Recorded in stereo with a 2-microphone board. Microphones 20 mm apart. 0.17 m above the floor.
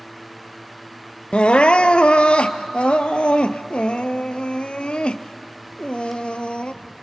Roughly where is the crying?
Left.